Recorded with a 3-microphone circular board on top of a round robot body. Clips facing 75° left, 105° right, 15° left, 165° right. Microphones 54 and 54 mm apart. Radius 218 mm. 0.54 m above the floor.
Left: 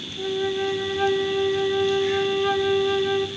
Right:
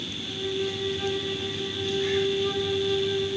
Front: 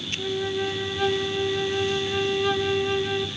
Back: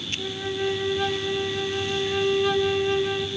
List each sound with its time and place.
0.2 s a flute: 105° left, 1.8 m